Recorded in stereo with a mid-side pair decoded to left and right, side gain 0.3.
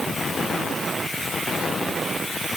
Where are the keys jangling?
No keys jangling in this recording.